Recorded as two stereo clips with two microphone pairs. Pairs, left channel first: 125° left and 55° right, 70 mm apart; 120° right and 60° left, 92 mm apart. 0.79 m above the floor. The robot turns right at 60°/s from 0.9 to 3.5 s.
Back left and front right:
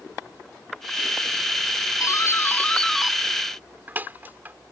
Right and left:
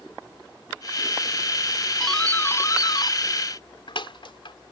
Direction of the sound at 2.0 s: 155° left.